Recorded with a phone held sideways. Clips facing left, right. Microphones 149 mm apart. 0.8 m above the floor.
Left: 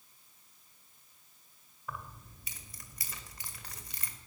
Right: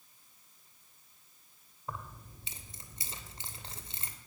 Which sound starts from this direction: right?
Keys jangling, at 1.9 s.